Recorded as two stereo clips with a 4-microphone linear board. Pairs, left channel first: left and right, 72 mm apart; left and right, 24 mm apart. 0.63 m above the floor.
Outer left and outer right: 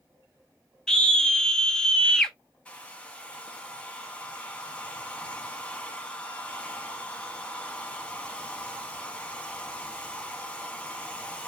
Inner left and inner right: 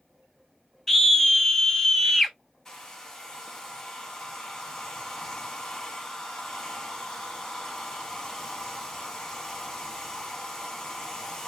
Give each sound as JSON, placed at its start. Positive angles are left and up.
{"t": 0.9, "sound": "a scream", "side_deg": 10, "distance_m": 0.6}
{"t": 2.6, "sound": "a hair dryer", "side_deg": 15, "distance_m": 0.7}